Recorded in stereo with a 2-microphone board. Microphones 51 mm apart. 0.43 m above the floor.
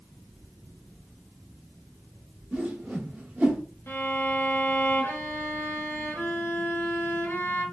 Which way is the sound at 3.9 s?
50° left (ahead or behind).